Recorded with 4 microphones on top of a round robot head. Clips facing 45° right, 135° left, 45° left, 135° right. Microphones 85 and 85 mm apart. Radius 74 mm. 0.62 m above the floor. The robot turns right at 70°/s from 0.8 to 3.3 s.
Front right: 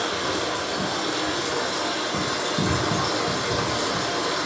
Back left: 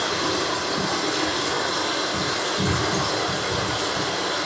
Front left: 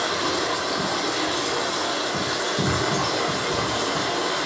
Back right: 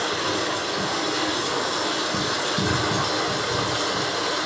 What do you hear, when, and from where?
0.0 s running water: 125° left, 1.9 m; by 4.5 s 60° right, 1.9 m